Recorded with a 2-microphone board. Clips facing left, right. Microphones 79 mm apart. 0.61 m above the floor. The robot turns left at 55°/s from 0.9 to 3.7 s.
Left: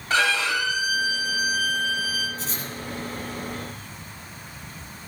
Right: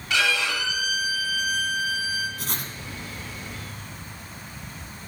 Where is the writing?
60° right (ahead or behind), 1.5 m; by 2.7 s 75° right (ahead or behind), 1.5 m.